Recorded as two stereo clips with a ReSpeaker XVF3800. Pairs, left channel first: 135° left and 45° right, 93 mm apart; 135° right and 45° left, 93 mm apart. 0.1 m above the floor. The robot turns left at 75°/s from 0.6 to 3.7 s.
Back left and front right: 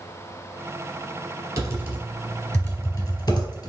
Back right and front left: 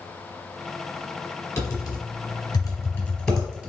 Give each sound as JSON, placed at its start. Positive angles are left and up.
{"t": 1.6, "sound": "typing on a keyboard", "azimuth_deg": -80, "distance_m": 1.1}